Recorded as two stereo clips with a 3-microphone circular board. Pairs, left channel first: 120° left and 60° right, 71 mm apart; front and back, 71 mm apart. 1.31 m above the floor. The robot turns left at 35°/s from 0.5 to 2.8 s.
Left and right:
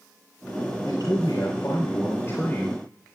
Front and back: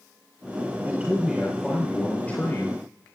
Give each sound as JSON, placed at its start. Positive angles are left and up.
{"t": 0.8, "sound": "a man speaking", "azimuth_deg": 115, "distance_m": 4.0}